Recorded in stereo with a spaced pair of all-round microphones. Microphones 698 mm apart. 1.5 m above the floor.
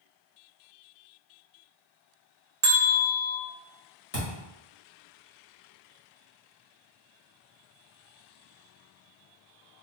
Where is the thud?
20° left (ahead or behind), 1.6 m.